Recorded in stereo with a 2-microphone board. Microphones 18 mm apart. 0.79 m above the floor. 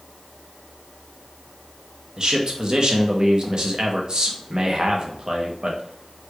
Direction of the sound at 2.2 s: 50° right (ahead or behind).